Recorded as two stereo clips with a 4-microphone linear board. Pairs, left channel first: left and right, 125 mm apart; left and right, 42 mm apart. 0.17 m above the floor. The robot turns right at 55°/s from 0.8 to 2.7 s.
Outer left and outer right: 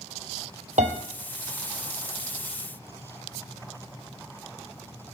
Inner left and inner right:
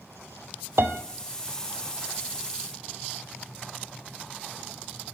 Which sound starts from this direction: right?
A piano, at 0.8 s.